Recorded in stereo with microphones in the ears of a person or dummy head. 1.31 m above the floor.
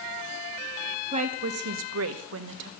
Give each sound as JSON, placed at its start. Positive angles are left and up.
{"t": 1.1, "sound": "a woman speaking", "side_deg": -35, "distance_m": 1.2}